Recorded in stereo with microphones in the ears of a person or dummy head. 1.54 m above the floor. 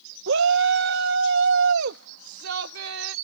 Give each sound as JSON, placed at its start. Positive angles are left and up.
{"t": 0.3, "sound": "a shout", "side_deg": -75}